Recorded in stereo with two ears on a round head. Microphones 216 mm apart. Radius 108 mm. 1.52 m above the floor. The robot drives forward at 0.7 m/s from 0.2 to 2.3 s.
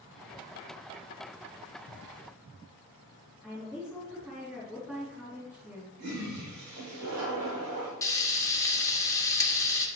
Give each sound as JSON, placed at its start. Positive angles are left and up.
{"t": 3.4, "sound": "a woman speaking", "side_deg": -5, "distance_m": 3.5}
{"t": 6.0, "sound": "a toilet flushing", "side_deg": -75, "distance_m": 4.5}
{"t": 8.0, "sound": "frying", "side_deg": 15, "distance_m": 1.1}